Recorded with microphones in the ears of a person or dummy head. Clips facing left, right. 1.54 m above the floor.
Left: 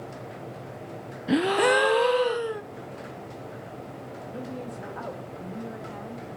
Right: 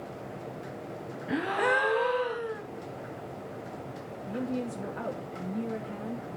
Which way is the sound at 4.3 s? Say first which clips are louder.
Right 5 dB; 25° right (ahead or behind).